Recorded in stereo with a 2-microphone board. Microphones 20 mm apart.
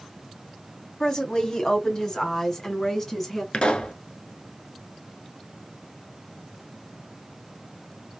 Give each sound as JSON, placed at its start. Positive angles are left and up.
{"t": 1.0, "sound": "a woman speaking", "side_deg": 35, "distance_m": 1.3}
{"t": 3.5, "sound": "a pop", "side_deg": 60, "distance_m": 0.9}